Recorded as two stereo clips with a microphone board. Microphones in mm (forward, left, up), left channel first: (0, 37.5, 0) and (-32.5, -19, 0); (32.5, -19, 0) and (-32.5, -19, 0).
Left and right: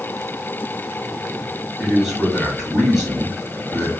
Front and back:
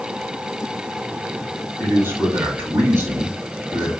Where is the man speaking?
155° left, 1.3 m.